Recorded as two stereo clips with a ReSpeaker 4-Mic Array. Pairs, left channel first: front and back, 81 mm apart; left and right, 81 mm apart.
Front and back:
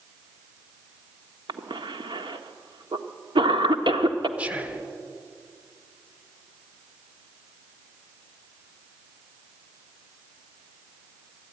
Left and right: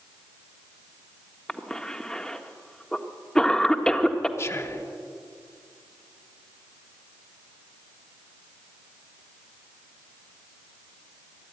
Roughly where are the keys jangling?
No keys jangling in this recording.